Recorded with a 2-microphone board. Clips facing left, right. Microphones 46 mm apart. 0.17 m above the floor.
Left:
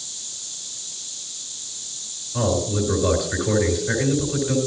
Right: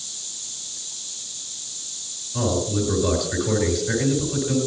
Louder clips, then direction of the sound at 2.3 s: Left 1 dB; 15° left (ahead or behind).